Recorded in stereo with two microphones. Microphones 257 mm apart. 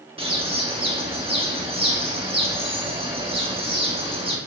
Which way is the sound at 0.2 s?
20° right (ahead or behind).